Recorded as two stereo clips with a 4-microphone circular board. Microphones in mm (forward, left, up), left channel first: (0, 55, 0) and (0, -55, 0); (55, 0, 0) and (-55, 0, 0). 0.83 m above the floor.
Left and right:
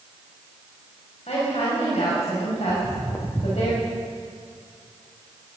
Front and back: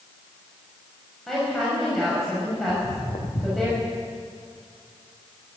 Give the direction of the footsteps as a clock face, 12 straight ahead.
11 o'clock.